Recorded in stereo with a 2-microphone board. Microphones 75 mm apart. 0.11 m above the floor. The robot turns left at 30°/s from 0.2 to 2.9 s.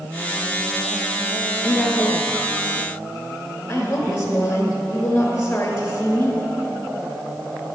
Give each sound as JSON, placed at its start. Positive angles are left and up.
{"t": 1.6, "sound": "a woman speaking", "side_deg": 20, "distance_m": 1.2}